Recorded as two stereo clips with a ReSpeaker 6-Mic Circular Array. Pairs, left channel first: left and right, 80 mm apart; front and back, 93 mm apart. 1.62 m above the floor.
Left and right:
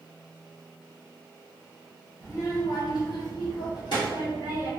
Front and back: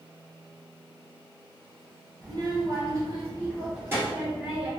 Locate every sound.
2.2 s a child speaking: 140° left, 1.1 m; by 4.7 s 110° left, 2.5 m